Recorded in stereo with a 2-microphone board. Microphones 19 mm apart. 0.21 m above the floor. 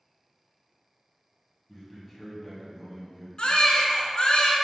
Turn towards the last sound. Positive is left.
turn(degrees=60)  # may be behind; listen again after turning